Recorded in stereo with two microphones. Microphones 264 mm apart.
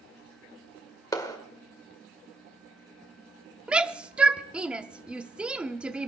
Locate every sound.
1.1 s a clap: 15° left (ahead or behind), 1.8 m
3.7 s a shout: 5° right (ahead or behind), 0.7 m